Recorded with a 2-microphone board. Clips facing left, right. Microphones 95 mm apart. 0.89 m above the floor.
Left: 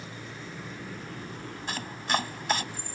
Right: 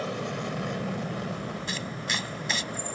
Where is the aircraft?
70° right (ahead or behind); by 3.0 s 75° right (ahead or behind).